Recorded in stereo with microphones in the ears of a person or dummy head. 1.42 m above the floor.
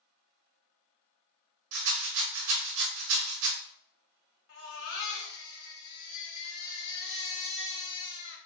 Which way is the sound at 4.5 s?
80° left.